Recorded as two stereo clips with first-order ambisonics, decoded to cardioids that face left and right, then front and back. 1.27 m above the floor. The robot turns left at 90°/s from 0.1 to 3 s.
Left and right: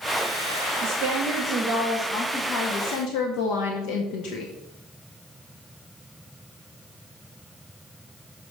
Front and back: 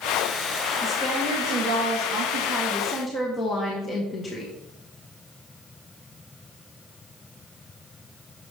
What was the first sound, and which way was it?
A woman speaking, 90° right.